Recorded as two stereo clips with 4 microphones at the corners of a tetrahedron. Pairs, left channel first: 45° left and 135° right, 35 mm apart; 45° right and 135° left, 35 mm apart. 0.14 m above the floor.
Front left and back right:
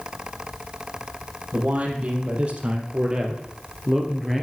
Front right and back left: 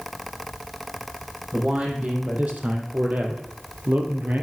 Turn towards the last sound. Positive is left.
turn(degrees=135)